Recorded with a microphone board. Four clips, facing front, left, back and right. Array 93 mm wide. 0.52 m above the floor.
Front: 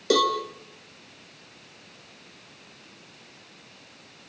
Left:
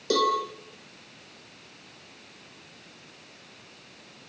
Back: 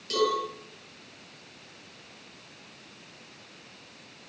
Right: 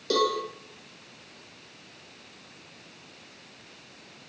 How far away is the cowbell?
About 6.5 m.